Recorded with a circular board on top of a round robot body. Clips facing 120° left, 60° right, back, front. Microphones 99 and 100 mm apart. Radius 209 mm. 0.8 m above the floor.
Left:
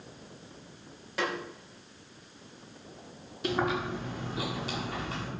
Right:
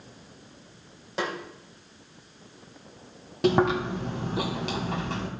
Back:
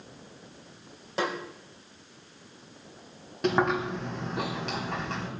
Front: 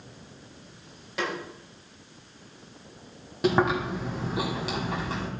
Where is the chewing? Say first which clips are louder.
Right 7 dB, front 2 dB; 85° right, 2.5 m.